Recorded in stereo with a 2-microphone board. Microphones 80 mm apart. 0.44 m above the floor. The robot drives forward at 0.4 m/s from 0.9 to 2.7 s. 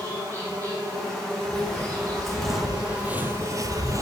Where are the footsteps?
5° left (ahead or behind), 3 m; by 4.0 s 45° right (ahead or behind), 0.7 m.